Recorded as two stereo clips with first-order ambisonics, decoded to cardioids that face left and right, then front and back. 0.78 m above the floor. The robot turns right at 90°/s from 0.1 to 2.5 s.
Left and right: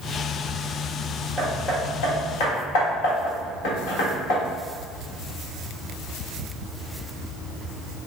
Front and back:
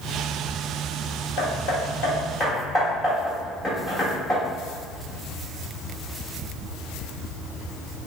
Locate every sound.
1.4 s hammering: 15° right, 1.5 m; by 4.4 s 85° left, 1.5 m